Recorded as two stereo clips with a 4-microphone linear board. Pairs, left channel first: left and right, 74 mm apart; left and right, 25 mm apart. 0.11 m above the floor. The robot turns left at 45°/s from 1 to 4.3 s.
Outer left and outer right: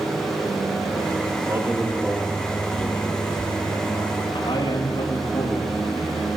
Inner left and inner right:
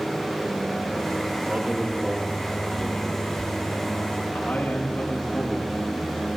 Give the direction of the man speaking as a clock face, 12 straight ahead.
5 o'clock.